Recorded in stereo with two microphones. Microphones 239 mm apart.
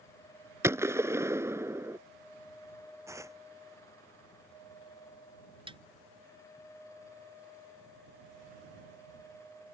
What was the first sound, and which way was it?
A gunshot, 10° right (ahead or behind).